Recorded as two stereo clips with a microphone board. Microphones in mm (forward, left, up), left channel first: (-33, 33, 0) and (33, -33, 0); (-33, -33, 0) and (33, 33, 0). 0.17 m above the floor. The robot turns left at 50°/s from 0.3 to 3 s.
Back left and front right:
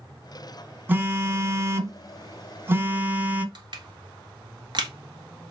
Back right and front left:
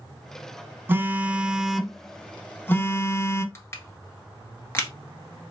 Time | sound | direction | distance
0.9 | a phone buzzing | 5° left | 0.6 m
3.5 | crushing | 75° right | 1.2 m